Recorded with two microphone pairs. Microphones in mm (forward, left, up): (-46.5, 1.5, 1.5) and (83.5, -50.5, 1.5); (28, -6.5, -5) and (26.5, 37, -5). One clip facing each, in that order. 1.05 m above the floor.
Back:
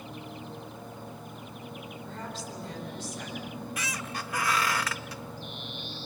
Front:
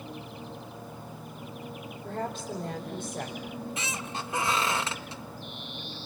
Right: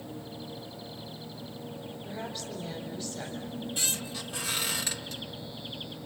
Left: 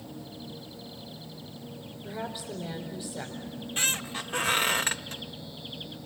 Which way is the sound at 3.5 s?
45° left.